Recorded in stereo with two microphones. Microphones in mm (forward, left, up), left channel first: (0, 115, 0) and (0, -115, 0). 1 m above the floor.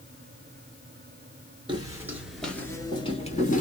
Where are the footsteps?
20° right (ahead or behind), 1.0 m; by 3.6 s 35° left (ahead or behind), 1.1 m.